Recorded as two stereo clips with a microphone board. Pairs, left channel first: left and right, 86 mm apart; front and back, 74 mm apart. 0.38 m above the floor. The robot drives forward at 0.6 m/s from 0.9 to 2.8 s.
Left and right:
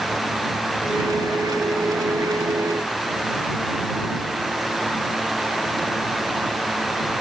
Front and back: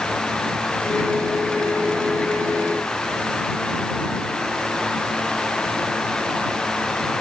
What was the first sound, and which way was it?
Only background noise.